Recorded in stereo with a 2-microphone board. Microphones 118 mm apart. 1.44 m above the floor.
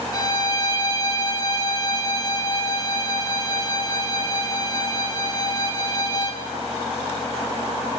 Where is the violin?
35° left (ahead or behind), 3 m.